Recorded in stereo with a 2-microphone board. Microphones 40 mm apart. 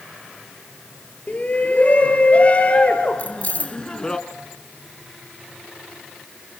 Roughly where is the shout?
Left.